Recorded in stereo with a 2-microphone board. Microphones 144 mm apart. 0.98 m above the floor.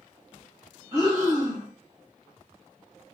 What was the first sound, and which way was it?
Breathing, 30° right (ahead or behind).